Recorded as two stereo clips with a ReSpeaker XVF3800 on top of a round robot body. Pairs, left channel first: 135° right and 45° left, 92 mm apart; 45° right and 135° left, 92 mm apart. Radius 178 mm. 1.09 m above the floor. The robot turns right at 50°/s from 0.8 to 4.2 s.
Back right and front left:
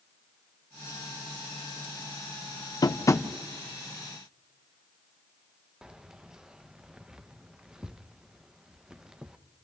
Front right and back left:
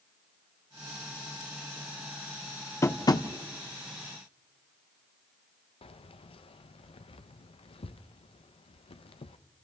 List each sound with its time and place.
2.8 s tapping: 95° right, 1.1 m; by 3.3 s 75° right, 1.1 m
5.8 s keys jangling: 40° right, 0.7 m